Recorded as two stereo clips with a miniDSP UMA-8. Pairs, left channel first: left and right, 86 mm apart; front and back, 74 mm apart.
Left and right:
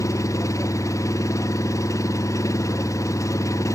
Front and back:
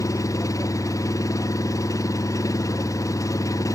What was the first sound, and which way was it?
An engine running, 40° left.